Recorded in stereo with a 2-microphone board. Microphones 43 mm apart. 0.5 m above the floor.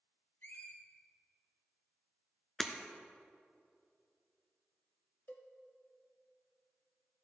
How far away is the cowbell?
About 0.9 m.